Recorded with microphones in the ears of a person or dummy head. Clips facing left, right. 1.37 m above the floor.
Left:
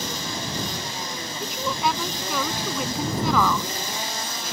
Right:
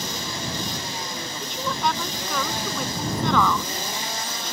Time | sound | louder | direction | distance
1.4 | a woman speaking | left 1 dB | 5° left (ahead or behind) | ?